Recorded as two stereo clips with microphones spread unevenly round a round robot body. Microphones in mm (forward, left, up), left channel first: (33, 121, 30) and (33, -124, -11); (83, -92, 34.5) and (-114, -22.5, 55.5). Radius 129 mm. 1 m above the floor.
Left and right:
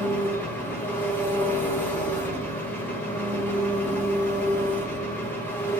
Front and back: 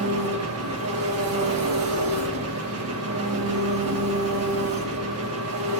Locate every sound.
0.0 s an engine running: 175° left, 1.2 m